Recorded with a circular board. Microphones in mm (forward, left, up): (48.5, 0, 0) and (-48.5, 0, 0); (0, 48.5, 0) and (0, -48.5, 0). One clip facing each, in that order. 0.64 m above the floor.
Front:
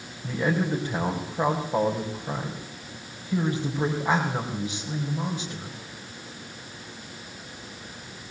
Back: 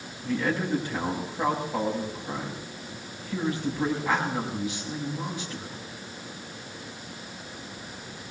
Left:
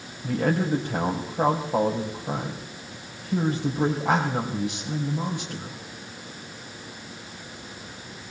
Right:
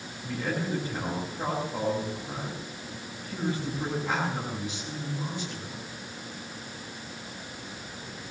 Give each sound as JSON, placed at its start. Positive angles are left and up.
{"t": 0.2, "sound": "a man speaking", "azimuth_deg": 55, "distance_m": 4.5}